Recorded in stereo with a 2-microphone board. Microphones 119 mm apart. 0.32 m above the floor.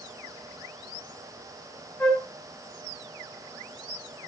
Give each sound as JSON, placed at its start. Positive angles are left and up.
{"t": 2.0, "sound": "a flute", "side_deg": 20, "distance_m": 3.5}